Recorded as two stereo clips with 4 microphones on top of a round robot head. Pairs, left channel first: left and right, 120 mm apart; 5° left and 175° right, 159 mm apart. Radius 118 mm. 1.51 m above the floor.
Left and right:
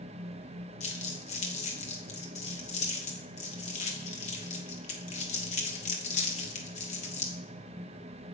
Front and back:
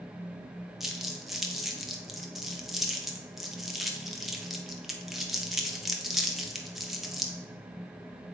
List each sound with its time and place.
0.8 s crumpling: 95° left, 1.0 m